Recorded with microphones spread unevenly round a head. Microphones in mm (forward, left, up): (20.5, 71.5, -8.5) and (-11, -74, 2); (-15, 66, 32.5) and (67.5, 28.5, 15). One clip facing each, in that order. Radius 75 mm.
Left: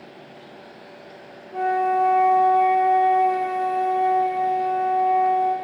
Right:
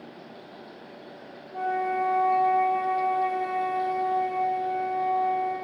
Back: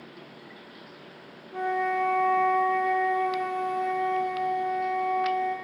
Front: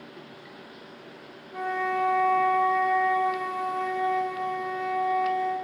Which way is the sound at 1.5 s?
60° left.